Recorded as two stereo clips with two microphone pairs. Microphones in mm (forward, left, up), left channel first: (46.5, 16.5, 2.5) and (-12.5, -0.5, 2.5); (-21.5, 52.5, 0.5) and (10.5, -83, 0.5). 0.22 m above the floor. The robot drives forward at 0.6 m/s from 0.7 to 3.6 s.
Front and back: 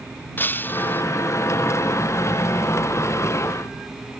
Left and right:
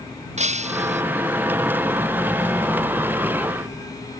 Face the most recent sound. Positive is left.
turn(degrees=-45)